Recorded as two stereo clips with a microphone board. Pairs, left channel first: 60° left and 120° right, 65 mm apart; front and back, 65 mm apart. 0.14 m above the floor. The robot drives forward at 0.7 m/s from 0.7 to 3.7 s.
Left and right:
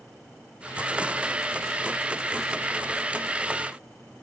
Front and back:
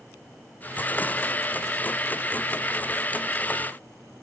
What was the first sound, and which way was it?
Only background noise.